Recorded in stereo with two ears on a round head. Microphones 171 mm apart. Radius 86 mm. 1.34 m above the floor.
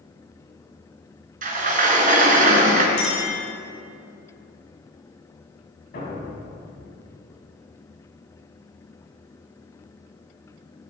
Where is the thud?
55° left (ahead or behind), 5 m.